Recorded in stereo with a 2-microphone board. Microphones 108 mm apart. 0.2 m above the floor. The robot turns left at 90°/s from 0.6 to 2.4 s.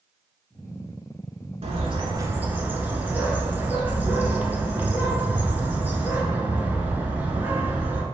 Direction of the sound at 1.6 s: 90° right.